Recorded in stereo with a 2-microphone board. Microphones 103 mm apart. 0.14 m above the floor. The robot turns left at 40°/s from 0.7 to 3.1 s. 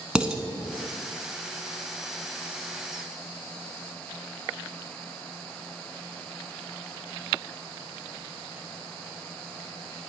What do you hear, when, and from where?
0.1 s dishes clattering: 10° right (ahead or behind), 0.7 m